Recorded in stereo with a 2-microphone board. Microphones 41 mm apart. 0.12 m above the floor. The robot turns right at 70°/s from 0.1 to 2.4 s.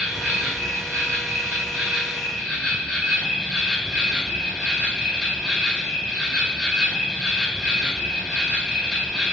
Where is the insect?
150° right, 1.1 m; by 9.3 s 10° left, 1.1 m.